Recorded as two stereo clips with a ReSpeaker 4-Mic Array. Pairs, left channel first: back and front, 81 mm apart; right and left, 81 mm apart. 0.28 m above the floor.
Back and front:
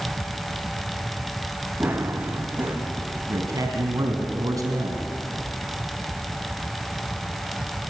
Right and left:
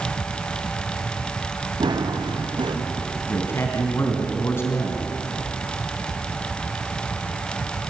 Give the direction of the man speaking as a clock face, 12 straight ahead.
1 o'clock.